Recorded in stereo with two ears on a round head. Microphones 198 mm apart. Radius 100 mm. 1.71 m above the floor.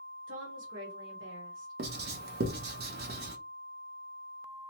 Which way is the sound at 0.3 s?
60° right (ahead or behind).